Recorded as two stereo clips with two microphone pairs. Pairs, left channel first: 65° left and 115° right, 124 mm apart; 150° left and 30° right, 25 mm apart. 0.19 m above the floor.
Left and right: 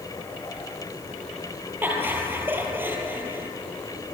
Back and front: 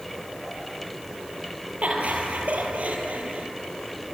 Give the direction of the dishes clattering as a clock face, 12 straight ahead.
I don't hear dishes clattering.